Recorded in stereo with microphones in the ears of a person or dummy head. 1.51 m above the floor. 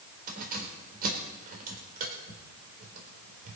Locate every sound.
0.3 s keys jangling: 50° right (ahead or behind), 4 m